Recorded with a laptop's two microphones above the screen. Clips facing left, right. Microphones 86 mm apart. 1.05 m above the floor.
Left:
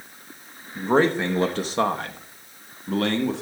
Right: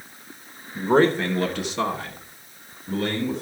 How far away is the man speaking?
About 1.1 m.